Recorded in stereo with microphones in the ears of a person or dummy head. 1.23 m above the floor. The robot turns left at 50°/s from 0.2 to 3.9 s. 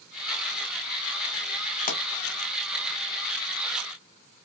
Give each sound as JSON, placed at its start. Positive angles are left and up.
{"t": 1.9, "sound": "a pop", "side_deg": 40, "distance_m": 0.8}